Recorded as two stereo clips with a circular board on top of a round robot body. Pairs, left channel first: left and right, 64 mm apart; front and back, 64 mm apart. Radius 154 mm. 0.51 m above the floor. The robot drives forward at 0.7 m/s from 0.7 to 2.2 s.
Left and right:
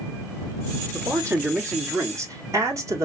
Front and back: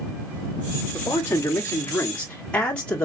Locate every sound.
0.9 s a man speaking: 45° right, 1.8 m; by 3.0 s 75° right, 1.4 m